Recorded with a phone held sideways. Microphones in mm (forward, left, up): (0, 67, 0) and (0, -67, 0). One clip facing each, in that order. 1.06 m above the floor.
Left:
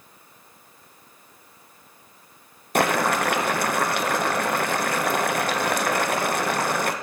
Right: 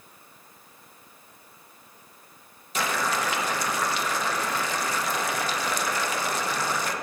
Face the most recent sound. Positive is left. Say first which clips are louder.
# left 6 dB
turn(degrees=60)  # may be behind; listen again after turning